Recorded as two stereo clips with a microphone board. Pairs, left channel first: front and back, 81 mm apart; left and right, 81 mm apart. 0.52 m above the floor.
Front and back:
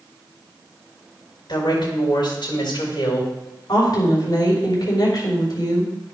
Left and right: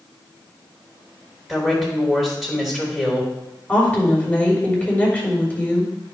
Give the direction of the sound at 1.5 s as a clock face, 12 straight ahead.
12 o'clock.